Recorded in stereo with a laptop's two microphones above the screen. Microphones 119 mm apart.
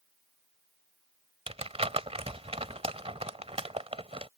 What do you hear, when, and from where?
1.5 s crumpling: 60° right (ahead or behind)